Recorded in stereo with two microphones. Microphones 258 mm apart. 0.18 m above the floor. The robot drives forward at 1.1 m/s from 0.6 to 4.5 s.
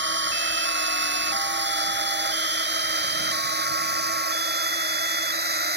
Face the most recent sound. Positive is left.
turn(degrees=-40)  # may be behind; listen again after turning